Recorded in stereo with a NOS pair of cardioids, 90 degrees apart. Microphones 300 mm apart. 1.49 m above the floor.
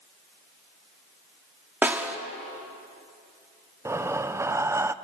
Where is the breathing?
10° right, 0.7 m.